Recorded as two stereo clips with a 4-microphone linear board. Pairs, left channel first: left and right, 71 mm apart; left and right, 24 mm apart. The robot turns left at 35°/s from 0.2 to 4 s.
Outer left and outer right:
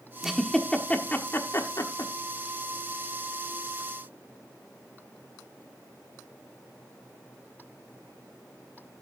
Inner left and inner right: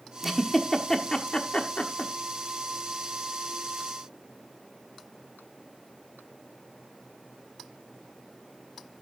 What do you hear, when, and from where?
0.2 s a giggle: 5° right (ahead or behind), 1.2 m; by 2.1 s 60° left (ahead or behind), 1.2 m